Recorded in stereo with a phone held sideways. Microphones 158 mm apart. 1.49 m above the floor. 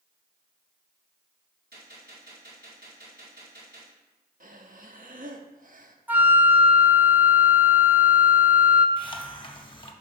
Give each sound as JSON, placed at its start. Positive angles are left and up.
{"t": 1.7, "sound": "a gunshot", "side_deg": -75, "distance_m": 2.0}
{"t": 4.4, "sound": "breathing", "side_deg": -55, "distance_m": 0.7}
{"t": 6.1, "sound": "a flute", "side_deg": -10, "distance_m": 0.6}
{"t": 9.0, "sound": "a hiss", "side_deg": 30, "distance_m": 0.7}